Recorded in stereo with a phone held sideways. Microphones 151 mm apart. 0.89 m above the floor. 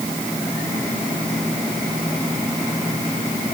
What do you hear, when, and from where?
Only background noise.